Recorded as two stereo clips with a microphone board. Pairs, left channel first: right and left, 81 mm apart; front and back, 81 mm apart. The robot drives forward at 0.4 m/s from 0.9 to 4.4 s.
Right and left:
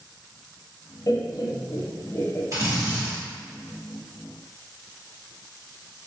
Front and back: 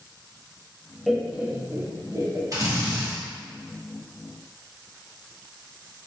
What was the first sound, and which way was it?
Laughter, 90° right.